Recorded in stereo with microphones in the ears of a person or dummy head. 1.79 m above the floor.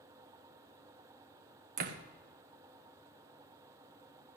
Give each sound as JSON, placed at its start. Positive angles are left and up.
{"t": 1.8, "sound": "a door slam", "side_deg": -45, "distance_m": 0.9}